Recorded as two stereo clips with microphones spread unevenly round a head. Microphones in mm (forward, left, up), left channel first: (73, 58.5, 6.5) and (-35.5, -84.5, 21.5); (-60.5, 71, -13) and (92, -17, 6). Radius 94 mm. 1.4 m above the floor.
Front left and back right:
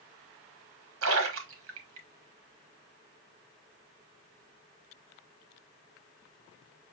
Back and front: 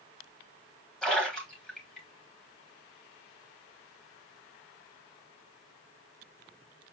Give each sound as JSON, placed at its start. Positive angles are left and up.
{"t": 1.0, "sound": "a splash", "azimuth_deg": -125, "distance_m": 1.0}